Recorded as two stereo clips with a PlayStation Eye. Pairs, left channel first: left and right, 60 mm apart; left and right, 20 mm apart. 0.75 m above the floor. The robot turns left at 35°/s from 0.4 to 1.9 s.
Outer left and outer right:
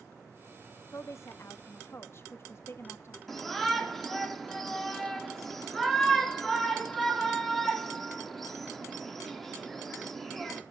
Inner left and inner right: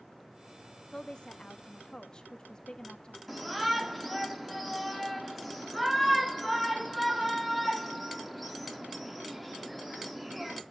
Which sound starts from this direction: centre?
A shout, at 3.3 s.